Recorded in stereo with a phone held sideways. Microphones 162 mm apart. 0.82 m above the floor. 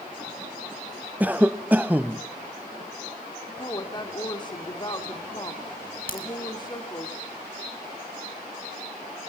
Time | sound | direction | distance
1.2 | a cough | 10° right (ahead or behind) | 0.5 m
3.6 | a woman speaking | 30° left (ahead or behind) | 2 m
6.1 | a crack | 65° left (ahead or behind) | 3.5 m